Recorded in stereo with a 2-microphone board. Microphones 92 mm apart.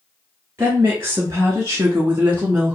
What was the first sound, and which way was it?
A woman speaking, 35° right (ahead or behind).